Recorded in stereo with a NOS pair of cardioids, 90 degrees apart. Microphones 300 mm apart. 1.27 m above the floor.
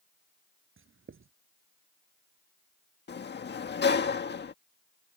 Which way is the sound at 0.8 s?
40° right.